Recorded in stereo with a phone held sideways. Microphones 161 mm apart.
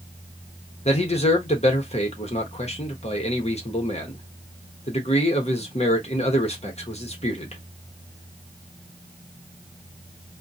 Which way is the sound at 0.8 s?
40° left (ahead or behind).